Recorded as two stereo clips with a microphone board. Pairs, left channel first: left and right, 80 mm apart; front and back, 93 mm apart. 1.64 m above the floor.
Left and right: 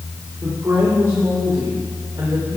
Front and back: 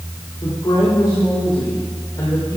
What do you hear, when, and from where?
0.4 s a woman speaking: 30° right, 4 m; by 2.6 s 45° right, 5 m